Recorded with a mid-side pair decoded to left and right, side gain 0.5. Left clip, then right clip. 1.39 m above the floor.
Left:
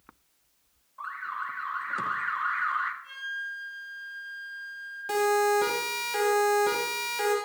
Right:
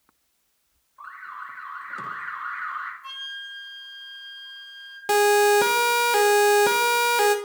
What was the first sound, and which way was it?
An alarm, 20° left.